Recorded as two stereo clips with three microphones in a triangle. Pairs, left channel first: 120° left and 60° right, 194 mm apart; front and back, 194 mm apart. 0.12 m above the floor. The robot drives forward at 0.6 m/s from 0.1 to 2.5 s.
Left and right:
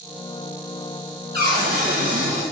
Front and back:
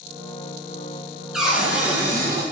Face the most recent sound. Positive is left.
turn(degrees=-110)